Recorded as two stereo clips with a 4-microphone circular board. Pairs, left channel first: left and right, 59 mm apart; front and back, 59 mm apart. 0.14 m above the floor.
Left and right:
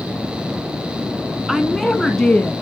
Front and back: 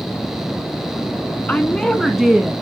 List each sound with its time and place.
1.5 s a woman speaking: straight ahead, 1.2 m; by 2.5 s 130° left, 1.1 m